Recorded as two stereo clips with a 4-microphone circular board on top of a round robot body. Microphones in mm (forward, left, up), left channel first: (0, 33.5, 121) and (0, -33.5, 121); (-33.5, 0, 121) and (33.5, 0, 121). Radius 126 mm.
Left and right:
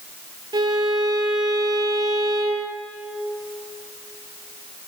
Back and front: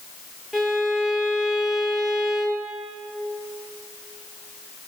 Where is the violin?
90° right, 3.5 m.